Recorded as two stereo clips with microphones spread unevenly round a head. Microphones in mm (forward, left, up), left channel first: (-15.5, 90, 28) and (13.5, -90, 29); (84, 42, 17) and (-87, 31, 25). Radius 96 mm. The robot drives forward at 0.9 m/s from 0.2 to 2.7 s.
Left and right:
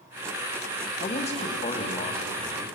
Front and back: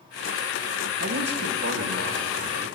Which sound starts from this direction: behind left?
A man speaking, at 1.0 s.